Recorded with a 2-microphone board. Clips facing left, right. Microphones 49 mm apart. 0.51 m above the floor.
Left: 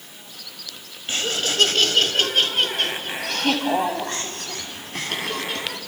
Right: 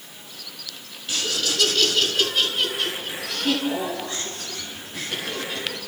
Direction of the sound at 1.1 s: 35° left (ahead or behind).